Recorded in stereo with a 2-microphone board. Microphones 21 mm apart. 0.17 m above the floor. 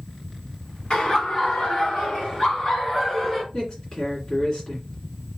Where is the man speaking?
50° left (ahead or behind), 2 m.